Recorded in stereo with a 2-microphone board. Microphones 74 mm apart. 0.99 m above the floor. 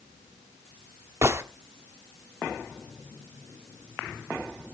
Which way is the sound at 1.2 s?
35° right (ahead or behind).